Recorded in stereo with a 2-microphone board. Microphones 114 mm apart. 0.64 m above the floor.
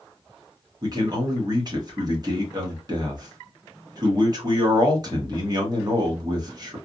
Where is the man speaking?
35° right (ahead or behind), 1.2 m.